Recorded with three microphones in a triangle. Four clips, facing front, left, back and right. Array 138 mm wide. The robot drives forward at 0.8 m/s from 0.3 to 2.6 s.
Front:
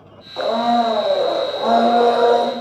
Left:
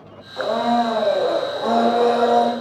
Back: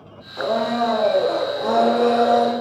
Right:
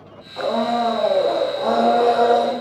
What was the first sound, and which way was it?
A blender, 5° left.